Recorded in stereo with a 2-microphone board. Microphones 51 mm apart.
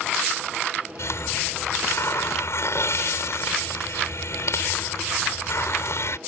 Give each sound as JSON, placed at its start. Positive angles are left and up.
{"t": 1.0, "sound": "a hiss", "side_deg": 60}